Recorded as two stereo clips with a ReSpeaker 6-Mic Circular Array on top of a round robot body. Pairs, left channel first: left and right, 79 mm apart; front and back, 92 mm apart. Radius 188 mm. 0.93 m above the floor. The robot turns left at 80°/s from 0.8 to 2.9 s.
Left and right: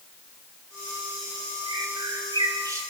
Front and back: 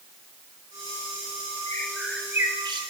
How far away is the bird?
About 2.5 m.